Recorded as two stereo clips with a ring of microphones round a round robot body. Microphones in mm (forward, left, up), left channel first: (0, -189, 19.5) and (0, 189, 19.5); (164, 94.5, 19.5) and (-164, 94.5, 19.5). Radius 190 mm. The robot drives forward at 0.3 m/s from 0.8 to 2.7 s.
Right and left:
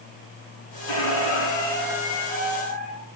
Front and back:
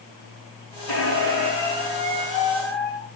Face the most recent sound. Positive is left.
turn(degrees=-135)